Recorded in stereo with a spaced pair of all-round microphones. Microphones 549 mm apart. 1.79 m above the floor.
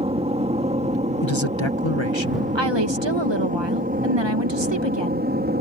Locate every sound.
0.0 s an aircraft: 10° right (ahead or behind); by 5.6 s 15° right (ahead or behind)
1.2 s a man speaking: 55° left (ahead or behind)
2.5 s a woman speaking: 50° right (ahead or behind)